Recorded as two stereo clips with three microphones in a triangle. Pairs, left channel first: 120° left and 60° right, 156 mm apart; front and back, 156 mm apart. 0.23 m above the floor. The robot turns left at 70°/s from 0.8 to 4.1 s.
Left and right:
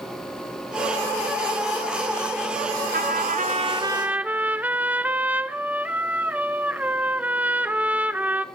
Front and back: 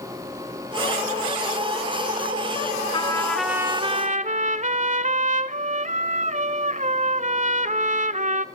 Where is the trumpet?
55° right, 0.5 m; by 8.4 s 140° right, 0.5 m.